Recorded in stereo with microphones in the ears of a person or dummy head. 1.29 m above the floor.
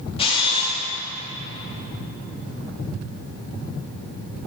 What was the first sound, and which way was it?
A camera shutter, 25° left (ahead or behind).